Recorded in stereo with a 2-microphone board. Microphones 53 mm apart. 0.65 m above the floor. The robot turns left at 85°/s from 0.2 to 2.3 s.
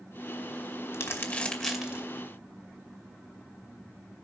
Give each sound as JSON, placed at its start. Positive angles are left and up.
{"t": 0.9, "sound": "crumpling", "side_deg": 60, "distance_m": 2.0}